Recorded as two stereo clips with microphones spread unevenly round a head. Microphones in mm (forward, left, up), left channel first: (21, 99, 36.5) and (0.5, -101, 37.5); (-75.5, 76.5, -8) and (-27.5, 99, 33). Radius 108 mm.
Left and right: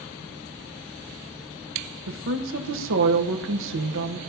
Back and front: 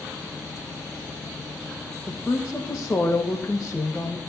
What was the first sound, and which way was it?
A woman speaking, 70° right.